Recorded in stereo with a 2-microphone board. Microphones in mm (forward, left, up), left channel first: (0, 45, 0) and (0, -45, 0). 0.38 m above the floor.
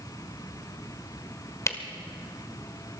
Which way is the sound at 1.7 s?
35° left (ahead or behind).